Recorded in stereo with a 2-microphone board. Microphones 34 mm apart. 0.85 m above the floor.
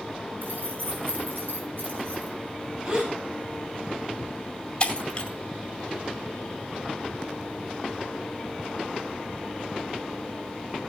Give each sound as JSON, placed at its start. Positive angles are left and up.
{"t": 0.4, "sound": "keys jangling", "side_deg": -70, "distance_m": 5.0}
{"t": 2.9, "sound": "a gasp", "side_deg": -30, "distance_m": 4.5}
{"t": 4.8, "sound": "breaking glass", "side_deg": 30, "distance_m": 2.5}